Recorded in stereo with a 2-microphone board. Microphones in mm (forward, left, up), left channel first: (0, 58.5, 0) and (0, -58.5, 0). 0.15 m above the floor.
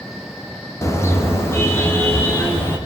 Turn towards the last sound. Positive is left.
turn(degrees=20)  # may be behind; listen again after turning